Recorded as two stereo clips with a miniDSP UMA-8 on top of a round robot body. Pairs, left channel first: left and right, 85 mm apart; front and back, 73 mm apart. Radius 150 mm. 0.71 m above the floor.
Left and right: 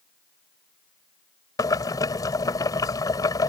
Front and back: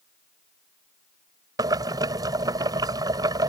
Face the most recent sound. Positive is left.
turn(degrees=140)